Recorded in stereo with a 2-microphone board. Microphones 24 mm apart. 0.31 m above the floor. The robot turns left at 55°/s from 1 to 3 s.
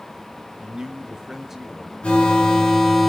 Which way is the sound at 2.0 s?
80° left.